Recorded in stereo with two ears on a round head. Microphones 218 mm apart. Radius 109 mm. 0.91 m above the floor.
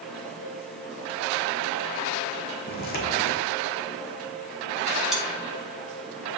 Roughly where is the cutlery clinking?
Centre.